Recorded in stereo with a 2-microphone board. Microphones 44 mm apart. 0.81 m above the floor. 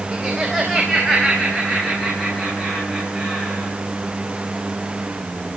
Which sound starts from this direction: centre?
Laughter, at 0.1 s.